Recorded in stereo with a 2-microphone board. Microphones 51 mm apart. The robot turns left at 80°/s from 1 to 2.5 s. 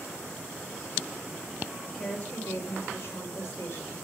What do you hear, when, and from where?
1.9 s a woman speaking: 170° left, 3 m; by 4.0 s 120° left, 3 m